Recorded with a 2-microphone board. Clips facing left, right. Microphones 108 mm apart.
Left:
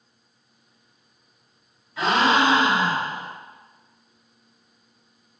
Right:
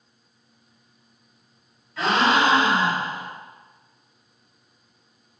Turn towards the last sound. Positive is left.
turn(degrees=10)  # may be behind; listen again after turning